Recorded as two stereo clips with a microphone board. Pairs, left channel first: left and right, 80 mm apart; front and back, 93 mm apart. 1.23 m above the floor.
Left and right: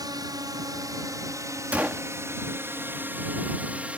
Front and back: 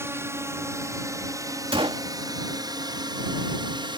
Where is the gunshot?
160° right.